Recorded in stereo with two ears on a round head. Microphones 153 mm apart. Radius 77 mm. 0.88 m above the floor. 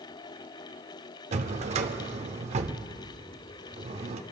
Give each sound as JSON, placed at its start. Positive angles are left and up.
{"t": 1.3, "sound": "a drawer", "side_deg": -40, "distance_m": 0.6}